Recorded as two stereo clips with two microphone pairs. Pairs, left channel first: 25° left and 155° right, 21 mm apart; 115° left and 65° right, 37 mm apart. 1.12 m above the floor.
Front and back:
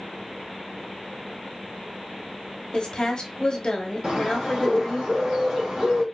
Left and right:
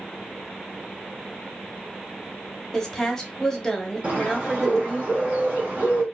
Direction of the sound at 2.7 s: 40° left.